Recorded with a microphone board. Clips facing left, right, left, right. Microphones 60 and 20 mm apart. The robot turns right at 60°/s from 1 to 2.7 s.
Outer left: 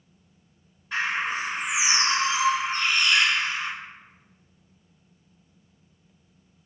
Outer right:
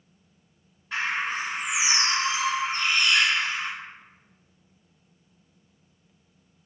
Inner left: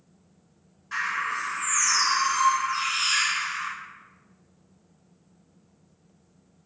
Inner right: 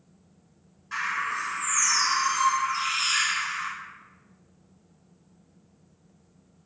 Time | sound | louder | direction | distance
0.9 | a bird | outer left 1 dB, inner left 1 dB | 5° left | 1.7 m